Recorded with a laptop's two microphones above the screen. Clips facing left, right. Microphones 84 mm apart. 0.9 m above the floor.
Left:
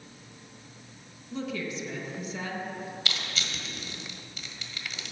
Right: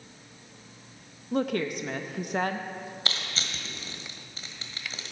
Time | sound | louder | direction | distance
1.3 | a woman speaking | right 6 dB | 60° right (ahead or behind) | 0.7 m
3.0 | crushing | even | 35° right (ahead or behind) | 1.6 m